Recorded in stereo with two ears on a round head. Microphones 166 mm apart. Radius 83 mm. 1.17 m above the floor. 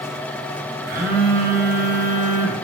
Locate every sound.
0.9 s a phone buzzing: 50° right (ahead or behind), 0.7 m